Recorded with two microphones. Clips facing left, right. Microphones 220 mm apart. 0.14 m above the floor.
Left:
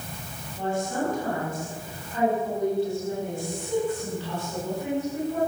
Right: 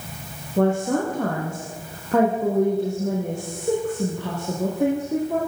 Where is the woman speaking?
75° right (ahead or behind), 7 m.